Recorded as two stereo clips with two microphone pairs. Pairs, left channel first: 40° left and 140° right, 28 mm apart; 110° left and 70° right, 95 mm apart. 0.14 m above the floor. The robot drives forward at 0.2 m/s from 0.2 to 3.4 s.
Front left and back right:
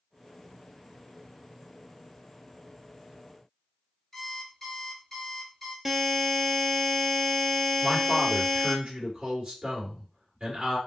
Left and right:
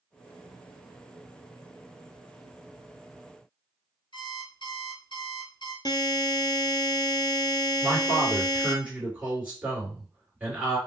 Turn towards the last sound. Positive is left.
turn(degrees=-140)